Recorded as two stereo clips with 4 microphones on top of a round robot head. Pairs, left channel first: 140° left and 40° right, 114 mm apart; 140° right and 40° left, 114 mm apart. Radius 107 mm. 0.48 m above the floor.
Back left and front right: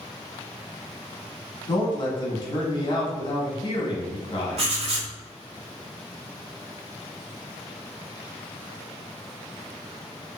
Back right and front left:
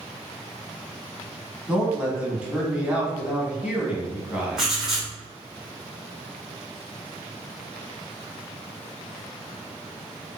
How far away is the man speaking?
About 1.4 m.